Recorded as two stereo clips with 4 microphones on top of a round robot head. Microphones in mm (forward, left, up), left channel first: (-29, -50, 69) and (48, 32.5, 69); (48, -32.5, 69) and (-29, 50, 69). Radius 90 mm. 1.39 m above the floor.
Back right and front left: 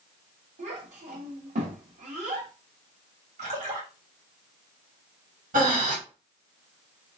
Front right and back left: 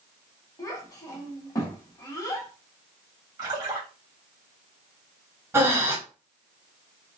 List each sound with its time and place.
0.6 s a child speaking: 20° left, 1.7 m
3.4 s a splash: 75° left, 2.5 m
5.5 s breathing: 65° left, 1.9 m